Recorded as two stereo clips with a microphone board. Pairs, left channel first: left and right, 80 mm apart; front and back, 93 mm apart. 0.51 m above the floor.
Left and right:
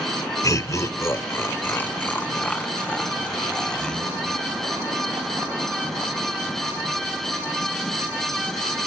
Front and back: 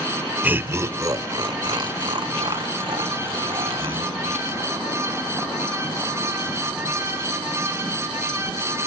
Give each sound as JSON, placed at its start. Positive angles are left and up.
{"t": 0.4, "sound": "laughter", "azimuth_deg": 115, "distance_m": 1.1}